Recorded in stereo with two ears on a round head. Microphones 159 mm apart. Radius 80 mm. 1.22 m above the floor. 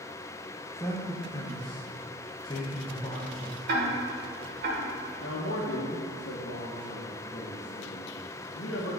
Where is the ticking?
60° right (ahead or behind), 1.5 m.